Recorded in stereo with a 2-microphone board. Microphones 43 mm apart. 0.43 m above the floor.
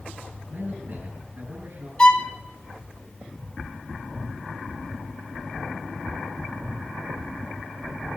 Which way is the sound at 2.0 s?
25° left (ahead or behind).